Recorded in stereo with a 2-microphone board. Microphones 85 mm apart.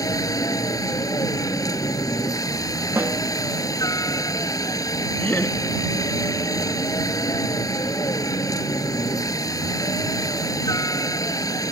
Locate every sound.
0.0 s a helicopter: 40° left (ahead or behind)
3.0 s a snare drum: 25° right (ahead or behind)
5.2 s laughter: 20° left (ahead or behind)